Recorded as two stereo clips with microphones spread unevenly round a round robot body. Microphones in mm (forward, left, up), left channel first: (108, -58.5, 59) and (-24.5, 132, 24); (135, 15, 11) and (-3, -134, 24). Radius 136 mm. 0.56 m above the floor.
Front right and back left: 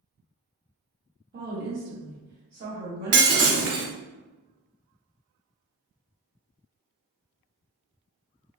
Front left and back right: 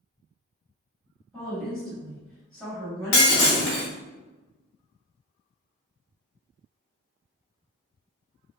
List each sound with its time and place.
1.3 s a woman speaking: 130° left, 1.4 m
3.1 s breaking glass: 85° left, 0.8 m